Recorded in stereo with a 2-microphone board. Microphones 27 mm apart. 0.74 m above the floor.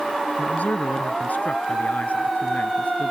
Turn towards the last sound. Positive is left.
turn(degrees=75)  # may be behind; listen again after turning